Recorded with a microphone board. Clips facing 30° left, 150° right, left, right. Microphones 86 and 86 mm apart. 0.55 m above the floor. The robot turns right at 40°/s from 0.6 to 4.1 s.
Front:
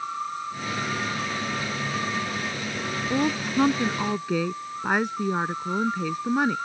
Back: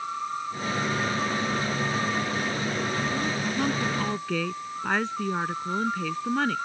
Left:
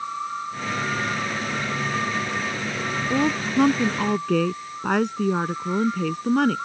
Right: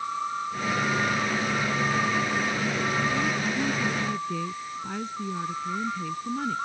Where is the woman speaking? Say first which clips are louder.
Front 4 dB, left 5 dB; 65° left; by 6.6 s 105° left.